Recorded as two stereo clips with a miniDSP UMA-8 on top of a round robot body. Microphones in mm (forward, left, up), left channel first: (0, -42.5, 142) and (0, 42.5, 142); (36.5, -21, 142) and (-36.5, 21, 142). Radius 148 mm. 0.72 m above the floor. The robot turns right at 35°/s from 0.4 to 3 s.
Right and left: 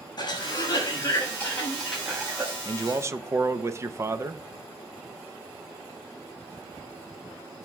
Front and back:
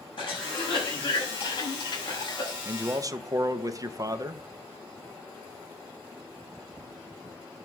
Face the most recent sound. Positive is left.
turn(degrees=130)